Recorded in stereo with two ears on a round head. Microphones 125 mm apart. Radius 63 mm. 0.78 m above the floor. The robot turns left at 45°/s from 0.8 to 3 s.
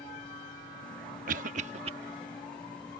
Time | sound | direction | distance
1.3 | a cough | 65° right (ahead or behind) | ?